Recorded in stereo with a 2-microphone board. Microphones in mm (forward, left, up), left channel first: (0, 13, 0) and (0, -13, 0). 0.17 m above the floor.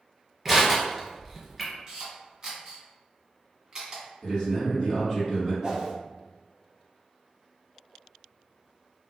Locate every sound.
0.5 s crushing: centre (ahead or behind), 1.4 m
1.9 s a camera shutter: 25° right (ahead or behind), 1.5 m
4.2 s a man speaking: 30° left (ahead or behind), 1.4 m
5.6 s a whoosh: 30° right (ahead or behind), 0.9 m